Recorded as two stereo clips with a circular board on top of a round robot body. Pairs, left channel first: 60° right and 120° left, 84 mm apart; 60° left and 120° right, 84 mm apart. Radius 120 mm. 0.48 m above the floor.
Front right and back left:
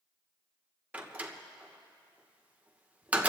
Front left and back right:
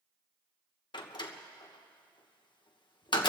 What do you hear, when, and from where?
0.9 s a door slam: 50° left, 1.4 m